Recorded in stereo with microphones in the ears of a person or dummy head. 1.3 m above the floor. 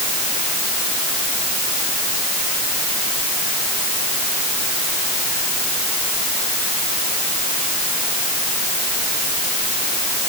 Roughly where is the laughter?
I don't hear laughter.